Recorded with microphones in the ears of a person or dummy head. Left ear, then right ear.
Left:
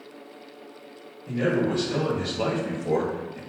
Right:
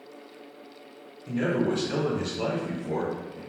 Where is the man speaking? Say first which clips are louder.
Left 2 dB; 45° right (ahead or behind), 1.1 m; by 3.4 s 60° left (ahead or behind), 0.9 m.